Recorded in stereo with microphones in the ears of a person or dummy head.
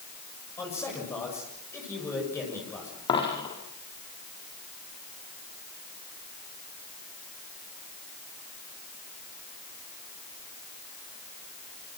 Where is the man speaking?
20° left (ahead or behind), 7 m.